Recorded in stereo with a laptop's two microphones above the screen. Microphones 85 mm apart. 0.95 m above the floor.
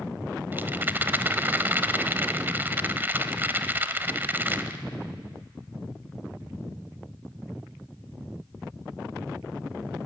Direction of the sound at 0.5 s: 25° right (ahead or behind).